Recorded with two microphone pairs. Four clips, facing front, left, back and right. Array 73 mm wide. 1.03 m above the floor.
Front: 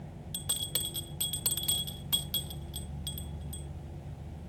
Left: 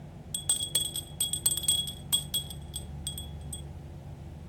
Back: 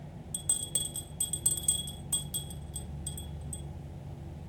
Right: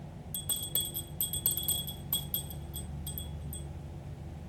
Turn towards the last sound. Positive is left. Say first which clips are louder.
# left 5 dB, front 5 dB
turn(degrees=60)